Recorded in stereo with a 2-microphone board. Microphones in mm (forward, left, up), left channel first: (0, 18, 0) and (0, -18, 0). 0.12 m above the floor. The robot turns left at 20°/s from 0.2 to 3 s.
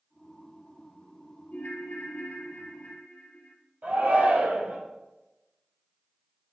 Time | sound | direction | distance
1.5 | a ringtone | 60° left (ahead or behind) | 1.4 m
3.8 | a shout | 55° right (ahead or behind) | 3.5 m